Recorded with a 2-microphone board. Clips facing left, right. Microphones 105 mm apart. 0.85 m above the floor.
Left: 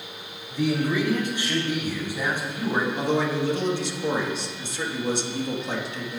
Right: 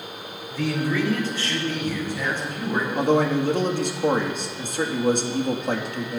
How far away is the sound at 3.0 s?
About 1.4 m.